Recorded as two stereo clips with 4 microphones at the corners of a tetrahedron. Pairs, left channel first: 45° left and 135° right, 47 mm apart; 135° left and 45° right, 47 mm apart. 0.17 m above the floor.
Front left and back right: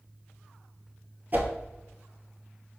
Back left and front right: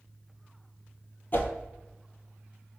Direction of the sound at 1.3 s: 175° left.